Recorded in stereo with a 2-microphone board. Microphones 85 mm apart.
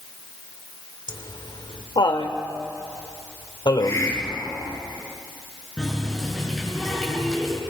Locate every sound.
1.1 s laughter: 70° left (ahead or behind), 2.5 m
3.8 s a hiss: 40° left (ahead or behind), 6 m
5.8 s a running tap: 5° left (ahead or behind), 6 m